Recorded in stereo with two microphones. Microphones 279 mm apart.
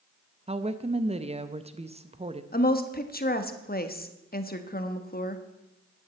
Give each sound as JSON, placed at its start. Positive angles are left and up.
{"t": 0.5, "sound": "a woman speaking", "side_deg": -25, "distance_m": 0.5}
{"t": 2.5, "sound": "a woman speaking", "side_deg": 35, "distance_m": 1.1}